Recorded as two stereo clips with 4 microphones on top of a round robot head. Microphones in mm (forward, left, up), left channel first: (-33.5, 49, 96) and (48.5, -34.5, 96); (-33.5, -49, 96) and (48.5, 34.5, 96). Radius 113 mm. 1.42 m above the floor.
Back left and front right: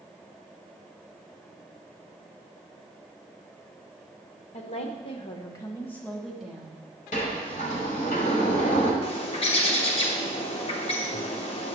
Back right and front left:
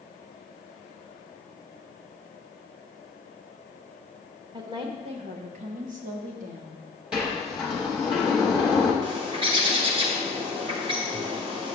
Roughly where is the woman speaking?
Left.